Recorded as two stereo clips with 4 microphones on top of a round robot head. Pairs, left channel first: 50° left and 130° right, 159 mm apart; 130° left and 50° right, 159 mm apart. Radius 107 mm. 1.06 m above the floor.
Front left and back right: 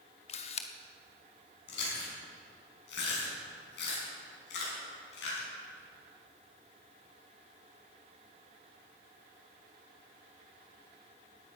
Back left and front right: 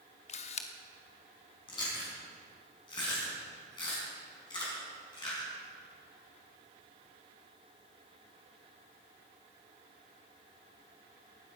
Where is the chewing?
65° left, 6.5 m.